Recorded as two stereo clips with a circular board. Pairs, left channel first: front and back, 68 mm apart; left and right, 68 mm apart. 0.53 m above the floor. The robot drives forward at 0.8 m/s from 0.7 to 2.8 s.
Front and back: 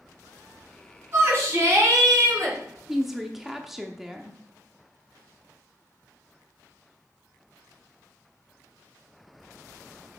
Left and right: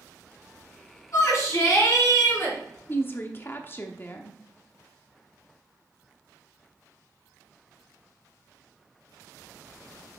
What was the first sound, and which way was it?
A shout, 130° left.